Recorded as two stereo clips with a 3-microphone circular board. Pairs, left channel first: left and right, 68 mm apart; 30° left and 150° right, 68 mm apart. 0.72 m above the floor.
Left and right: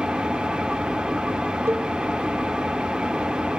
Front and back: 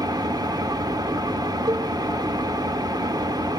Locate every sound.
0.0 s an engine running: 165° right, 1.1 m
1.7 s a cowbell: 145° right, 1.3 m